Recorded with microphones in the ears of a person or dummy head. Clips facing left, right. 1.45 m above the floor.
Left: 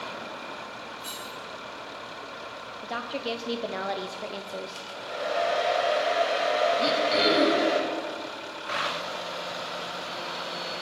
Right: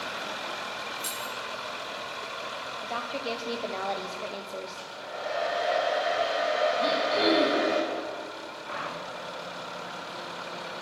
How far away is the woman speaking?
About 0.7 m.